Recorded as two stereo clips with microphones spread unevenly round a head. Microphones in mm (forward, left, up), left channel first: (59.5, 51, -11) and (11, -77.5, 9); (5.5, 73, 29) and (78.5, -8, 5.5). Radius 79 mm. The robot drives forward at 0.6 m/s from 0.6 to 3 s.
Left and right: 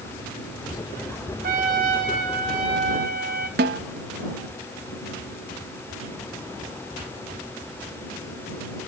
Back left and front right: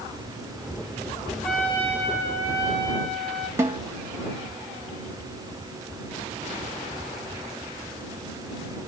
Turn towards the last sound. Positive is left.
turn(degrees=-125)